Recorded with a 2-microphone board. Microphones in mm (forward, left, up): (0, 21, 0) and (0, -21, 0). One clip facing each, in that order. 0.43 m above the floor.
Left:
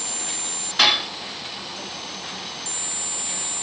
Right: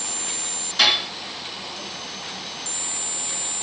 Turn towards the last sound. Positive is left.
turn(degrees=25)  # may be behind; listen again after turning